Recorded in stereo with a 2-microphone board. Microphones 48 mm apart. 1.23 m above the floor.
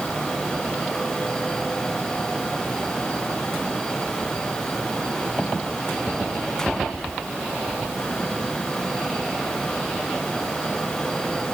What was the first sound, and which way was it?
Only background noise.